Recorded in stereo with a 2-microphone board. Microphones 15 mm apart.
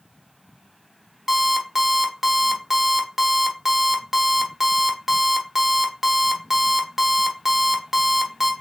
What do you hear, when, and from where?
1.3 s an alarm clock: 20° right (ahead or behind), 1.0 m